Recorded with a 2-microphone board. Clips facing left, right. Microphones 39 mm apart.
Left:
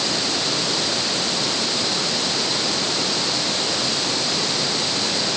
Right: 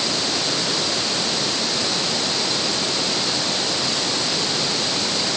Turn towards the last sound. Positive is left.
No sound to turn to.